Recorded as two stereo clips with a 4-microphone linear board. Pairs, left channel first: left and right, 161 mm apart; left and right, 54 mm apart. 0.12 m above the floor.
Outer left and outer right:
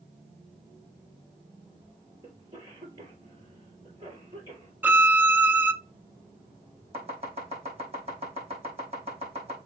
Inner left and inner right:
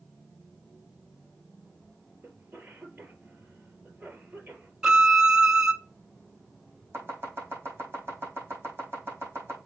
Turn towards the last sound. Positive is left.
turn(degrees=-40)  # may be behind; listen again after turning